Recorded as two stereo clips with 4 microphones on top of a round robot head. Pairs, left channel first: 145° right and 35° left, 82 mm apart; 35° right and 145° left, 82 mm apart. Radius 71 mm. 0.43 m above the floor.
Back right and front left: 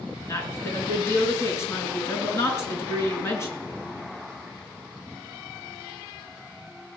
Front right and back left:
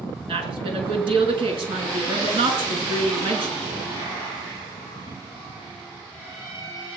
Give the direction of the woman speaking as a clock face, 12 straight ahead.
7 o'clock.